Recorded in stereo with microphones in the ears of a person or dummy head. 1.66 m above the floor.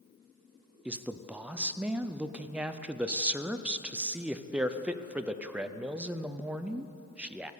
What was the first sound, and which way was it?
A man speaking, 10° right (ahead or behind).